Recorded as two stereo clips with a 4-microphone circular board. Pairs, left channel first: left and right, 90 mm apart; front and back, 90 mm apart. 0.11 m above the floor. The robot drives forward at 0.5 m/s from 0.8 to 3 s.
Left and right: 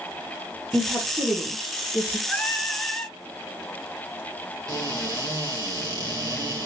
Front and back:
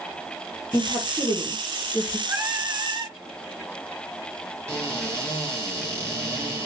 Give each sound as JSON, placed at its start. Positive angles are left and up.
{"t": 0.7, "sound": "a woman speaking", "azimuth_deg": 10, "distance_m": 2.5}
{"t": 2.3, "sound": "singing", "azimuth_deg": 150, "distance_m": 0.8}
{"t": 4.7, "sound": "a cupboard door", "azimuth_deg": -130, "distance_m": 2.5}